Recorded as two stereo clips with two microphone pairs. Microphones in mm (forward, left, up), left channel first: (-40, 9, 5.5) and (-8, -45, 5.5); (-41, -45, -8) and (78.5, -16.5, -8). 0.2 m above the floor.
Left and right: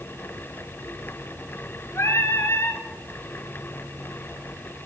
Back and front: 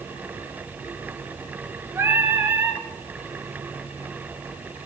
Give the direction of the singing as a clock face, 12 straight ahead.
9 o'clock.